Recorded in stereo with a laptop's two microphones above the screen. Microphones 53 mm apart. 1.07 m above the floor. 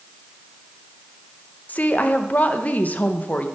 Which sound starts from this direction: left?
A woman speaking, at 1.7 s.